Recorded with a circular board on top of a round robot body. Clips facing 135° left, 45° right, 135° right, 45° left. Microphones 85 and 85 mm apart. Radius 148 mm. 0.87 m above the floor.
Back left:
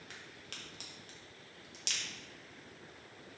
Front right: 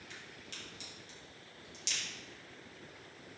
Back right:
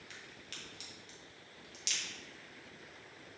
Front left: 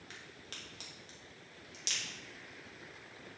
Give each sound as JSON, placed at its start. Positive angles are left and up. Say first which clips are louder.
{"t": 0.1, "sound": "a crack", "louder": "front right 1 dB, front left 2 dB", "azimuth_deg": 95, "distance_m": 0.9}